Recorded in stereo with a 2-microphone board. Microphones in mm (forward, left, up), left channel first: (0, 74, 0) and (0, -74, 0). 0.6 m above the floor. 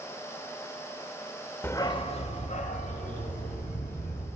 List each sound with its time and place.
1.6 s a dog barking: 15° left (ahead or behind), 0.7 m; by 4.3 s 75° left (ahead or behind), 2.5 m